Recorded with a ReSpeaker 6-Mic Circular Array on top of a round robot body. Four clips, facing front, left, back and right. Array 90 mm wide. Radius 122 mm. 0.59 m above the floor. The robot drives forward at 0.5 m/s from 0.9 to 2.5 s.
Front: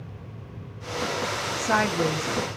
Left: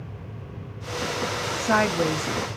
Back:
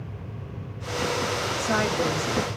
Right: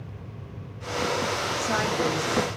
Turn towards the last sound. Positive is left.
turn(degrees=95)